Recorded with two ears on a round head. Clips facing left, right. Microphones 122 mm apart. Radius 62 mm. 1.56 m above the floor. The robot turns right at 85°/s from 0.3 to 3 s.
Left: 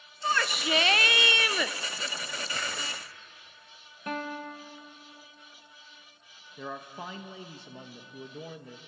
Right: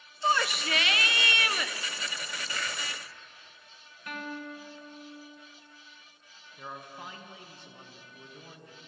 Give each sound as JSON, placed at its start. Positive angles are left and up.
{"t": 0.2, "sound": "a shout", "azimuth_deg": -20, "distance_m": 1.0}
{"t": 2.5, "sound": "a finger snap", "side_deg": 30, "distance_m": 6.5}
{"t": 4.1, "sound": "a guitar", "side_deg": 30, "distance_m": 1.7}
{"t": 6.6, "sound": "a man speaking", "side_deg": 65, "distance_m": 1.6}